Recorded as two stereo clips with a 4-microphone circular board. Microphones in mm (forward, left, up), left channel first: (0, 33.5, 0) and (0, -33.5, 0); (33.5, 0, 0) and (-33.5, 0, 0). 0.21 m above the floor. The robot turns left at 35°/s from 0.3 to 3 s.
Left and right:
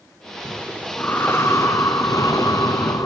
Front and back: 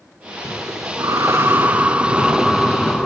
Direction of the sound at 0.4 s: 170° left.